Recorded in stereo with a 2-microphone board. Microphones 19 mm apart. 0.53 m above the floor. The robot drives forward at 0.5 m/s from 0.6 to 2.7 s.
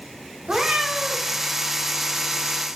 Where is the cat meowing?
65° right (ahead or behind), 0.6 m; by 1.3 s 45° right (ahead or behind), 0.8 m.